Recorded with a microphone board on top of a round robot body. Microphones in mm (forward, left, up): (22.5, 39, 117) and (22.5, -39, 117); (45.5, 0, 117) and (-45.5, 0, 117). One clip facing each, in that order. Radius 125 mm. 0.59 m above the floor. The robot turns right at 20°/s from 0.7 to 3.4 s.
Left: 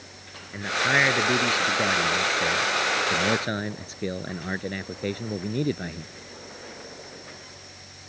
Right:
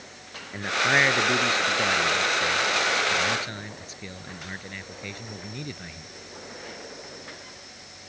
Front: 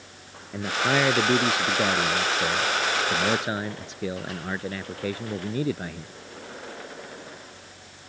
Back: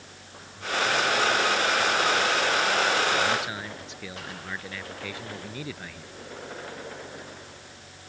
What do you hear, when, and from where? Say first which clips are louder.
0.5 s a man speaking: even, front 3 dB; straight ahead; by 6.1 s 55° left